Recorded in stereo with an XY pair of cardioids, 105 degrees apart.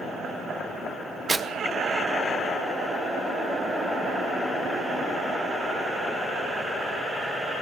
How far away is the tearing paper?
About 1.0 m.